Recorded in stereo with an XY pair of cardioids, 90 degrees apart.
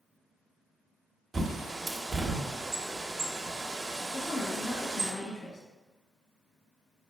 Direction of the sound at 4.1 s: 60° left.